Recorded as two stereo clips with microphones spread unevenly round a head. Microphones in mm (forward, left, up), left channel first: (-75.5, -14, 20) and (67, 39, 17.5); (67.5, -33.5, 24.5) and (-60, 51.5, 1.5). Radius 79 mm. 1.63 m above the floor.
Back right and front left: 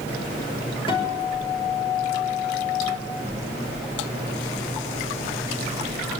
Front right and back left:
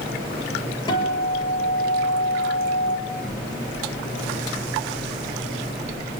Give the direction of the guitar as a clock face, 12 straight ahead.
3 o'clock.